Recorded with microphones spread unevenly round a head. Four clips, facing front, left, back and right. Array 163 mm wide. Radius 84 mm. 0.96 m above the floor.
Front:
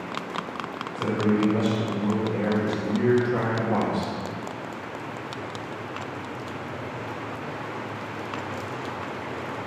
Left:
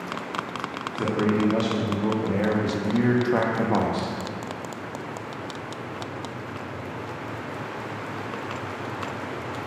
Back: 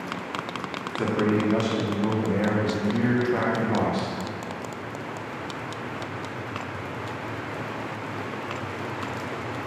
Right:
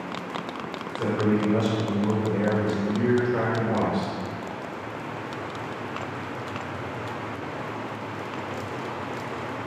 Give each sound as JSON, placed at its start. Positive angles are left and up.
{"t": 0.9, "sound": "a man speaking", "azimuth_deg": 150, "distance_m": 2.5}